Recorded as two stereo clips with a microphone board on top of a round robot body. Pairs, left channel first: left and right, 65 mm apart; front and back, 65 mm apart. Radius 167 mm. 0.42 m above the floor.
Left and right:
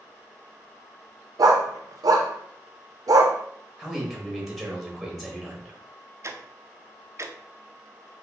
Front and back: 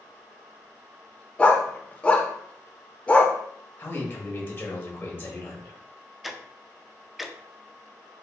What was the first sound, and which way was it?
A dog barking, 70° right.